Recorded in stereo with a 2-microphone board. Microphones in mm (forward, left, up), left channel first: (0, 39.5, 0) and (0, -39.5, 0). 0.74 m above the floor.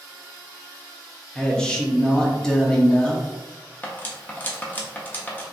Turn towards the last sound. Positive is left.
turn(degrees=25)  # may be behind; listen again after turning